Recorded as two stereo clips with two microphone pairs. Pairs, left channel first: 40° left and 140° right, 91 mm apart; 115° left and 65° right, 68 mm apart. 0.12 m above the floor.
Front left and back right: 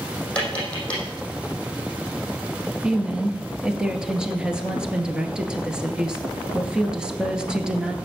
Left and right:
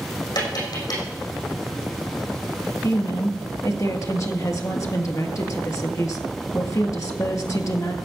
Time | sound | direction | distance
0.3 | tapping | 115° left | 6 m
2.8 | a woman speaking | 140° left | 1.7 m